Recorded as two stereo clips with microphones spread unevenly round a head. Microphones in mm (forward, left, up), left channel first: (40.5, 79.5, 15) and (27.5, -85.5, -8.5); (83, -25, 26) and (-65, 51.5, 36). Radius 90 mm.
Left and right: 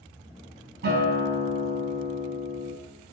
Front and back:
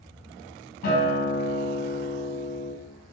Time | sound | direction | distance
0.8 | a guitar | 65° right | 3.5 m